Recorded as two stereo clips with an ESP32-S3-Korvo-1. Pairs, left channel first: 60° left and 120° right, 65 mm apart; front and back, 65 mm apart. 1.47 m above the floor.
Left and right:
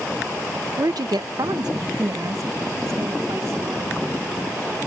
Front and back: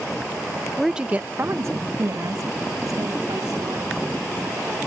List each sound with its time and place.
0.8 s a woman speaking: 90° right; by 4.8 s 170° right